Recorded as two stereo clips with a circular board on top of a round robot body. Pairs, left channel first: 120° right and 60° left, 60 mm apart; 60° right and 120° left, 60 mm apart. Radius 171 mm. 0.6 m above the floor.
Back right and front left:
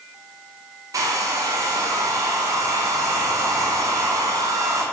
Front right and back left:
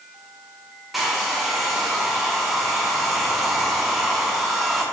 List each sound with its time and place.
0.9 s a hair dryer: 35° left, 0.6 m